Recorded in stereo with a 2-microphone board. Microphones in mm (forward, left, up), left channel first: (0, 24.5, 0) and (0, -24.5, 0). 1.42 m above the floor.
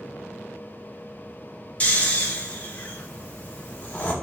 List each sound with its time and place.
1.8 s snoring: 30° left (ahead or behind), 1.6 m